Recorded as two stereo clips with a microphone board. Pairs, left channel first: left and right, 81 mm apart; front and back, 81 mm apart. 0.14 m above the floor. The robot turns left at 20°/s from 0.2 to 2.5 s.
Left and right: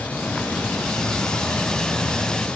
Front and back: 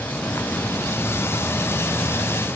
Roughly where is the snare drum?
I don't hear a snare drum.